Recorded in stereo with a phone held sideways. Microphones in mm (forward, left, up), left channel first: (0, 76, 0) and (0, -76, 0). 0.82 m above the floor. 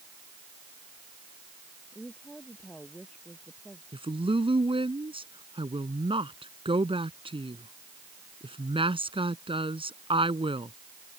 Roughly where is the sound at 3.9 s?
Right.